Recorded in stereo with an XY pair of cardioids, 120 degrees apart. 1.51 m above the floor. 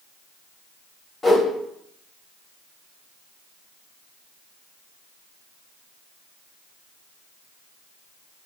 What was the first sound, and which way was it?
A whoosh, 20° left.